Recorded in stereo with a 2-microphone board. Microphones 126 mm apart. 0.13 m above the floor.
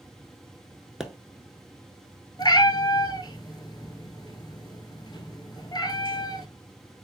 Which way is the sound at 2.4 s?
35° left (ahead or behind).